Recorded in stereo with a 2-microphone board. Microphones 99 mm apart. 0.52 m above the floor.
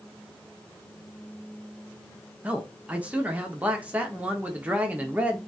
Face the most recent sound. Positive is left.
turn(degrees=-15)  # may be behind; listen again after turning